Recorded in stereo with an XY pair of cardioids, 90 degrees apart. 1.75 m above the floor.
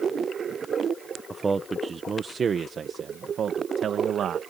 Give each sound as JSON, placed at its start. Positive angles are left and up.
{"t": 1.3, "sound": "a man speaking", "azimuth_deg": -25}